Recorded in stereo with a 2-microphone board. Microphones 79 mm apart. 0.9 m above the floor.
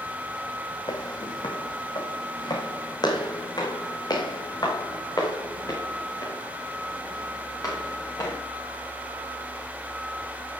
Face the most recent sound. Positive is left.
turn(degrees=45)  # may be behind; listen again after turning